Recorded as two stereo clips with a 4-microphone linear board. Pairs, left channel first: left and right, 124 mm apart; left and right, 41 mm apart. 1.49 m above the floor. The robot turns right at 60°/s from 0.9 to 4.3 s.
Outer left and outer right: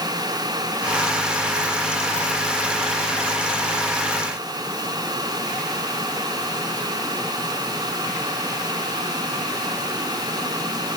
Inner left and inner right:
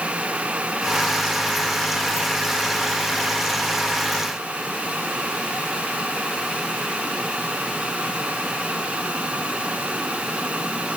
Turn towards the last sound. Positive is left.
No sound to turn to.